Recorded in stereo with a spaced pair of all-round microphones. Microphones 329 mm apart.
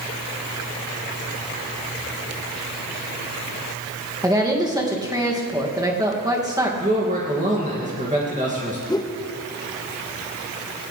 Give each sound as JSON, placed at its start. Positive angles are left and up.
{"t": 4.2, "sound": "a woman speaking", "side_deg": -10, "distance_m": 2.5}
{"t": 6.8, "sound": "a man speaking", "side_deg": -20, "distance_m": 2.5}
{"t": 8.9, "sound": "a whoosh", "side_deg": 10, "distance_m": 0.9}